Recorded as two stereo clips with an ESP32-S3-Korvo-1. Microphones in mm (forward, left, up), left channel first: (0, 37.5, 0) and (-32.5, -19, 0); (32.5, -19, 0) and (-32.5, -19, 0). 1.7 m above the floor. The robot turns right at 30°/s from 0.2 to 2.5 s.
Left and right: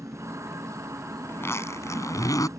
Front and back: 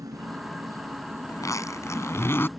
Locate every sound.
0.0 s an insect: 160° right; by 2.6 s 90° right
1.3 s a zipper: 15° left; by 2.5 s 50° left